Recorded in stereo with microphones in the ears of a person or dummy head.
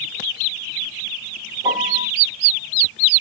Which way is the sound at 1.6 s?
15° right (ahead or behind).